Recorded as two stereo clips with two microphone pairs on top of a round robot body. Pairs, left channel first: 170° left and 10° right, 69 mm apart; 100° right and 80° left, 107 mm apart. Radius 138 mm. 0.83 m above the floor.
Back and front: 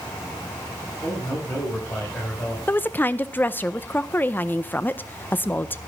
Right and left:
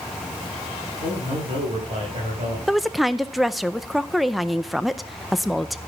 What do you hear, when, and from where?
1.0 s a man speaking: 110° left, 6 m; by 2.6 s 105° left, 5 m
2.7 s a woman speaking: 175° left, 0.7 m